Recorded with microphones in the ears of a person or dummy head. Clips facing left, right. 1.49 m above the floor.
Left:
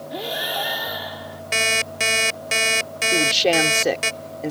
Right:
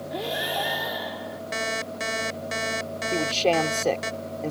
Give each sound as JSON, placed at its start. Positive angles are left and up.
{"t": 0.1, "sound": "breathing", "side_deg": 0}
{"t": 1.5, "sound": "an alarm clock", "side_deg": 40}
{"t": 3.1, "sound": "a man speaking", "side_deg": 20}